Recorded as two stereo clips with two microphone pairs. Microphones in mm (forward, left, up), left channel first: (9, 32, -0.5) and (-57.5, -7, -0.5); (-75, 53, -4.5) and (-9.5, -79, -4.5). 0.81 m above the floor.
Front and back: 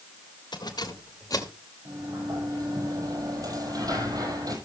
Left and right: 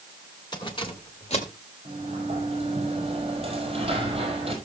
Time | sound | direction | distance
0.5 | keys jangling | 55° left | 2 m
1.9 | a sliding door | 115° right | 5 m